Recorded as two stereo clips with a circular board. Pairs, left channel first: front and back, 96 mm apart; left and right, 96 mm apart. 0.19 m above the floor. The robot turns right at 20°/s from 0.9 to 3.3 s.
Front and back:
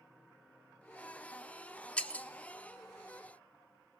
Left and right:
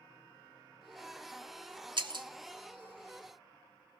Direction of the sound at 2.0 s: 75° right.